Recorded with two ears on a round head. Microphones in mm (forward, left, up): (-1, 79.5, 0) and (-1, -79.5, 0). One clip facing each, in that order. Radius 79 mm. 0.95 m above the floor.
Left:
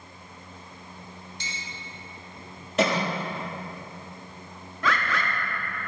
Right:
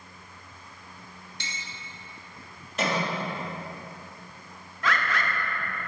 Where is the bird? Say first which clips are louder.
Left 1 dB; 75° left (ahead or behind), 1.1 m.